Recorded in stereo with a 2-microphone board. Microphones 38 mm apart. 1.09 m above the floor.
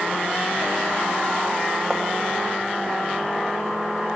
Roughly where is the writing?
Centre.